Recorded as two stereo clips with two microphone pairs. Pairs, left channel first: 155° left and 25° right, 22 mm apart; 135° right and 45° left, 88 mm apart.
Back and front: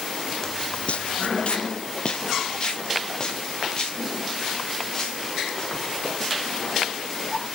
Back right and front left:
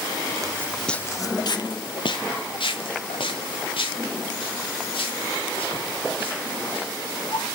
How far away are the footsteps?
About 0.5 m.